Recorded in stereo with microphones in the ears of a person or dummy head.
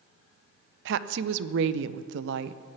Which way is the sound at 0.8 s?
65° right (ahead or behind).